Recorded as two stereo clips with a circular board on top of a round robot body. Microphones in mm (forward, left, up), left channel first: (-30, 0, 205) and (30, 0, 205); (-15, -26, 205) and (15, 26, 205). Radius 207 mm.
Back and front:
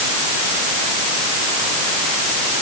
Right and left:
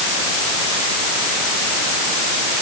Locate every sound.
Only background noise.